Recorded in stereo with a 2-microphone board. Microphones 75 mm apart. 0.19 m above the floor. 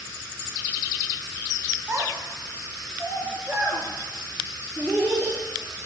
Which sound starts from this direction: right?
A child speaking, at 1.9 s.